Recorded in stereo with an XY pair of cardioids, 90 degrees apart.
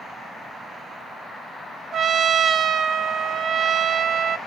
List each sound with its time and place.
1.9 s a trumpet: 60° right, 0.6 m